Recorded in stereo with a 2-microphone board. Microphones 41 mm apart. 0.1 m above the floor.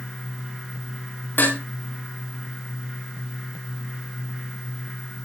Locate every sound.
1.4 s dishes clattering: 70° left (ahead or behind), 7 m